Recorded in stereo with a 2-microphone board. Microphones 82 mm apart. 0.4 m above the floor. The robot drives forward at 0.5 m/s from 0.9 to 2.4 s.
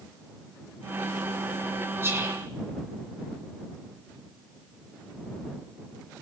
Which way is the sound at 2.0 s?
30° right (ahead or behind).